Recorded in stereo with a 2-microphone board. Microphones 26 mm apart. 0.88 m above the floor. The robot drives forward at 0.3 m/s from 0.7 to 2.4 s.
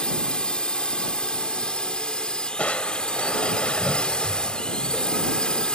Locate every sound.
0.0 s a drone: 40° left (ahead or behind)
2.6 s crushing: 70° left (ahead or behind)